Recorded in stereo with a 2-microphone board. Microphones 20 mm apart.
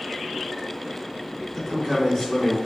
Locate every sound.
1.5 s a man speaking: 25° left (ahead or behind), 1.8 m; by 2.6 s 30° left (ahead or behind), 2 m